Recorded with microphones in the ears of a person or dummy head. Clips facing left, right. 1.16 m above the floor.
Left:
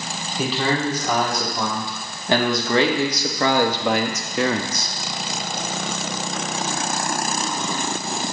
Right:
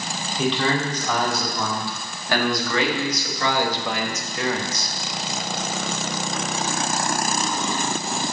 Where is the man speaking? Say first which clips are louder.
Even; 10° left (ahead or behind), 2.5 m; by 4.9 s 80° left, 1.2 m.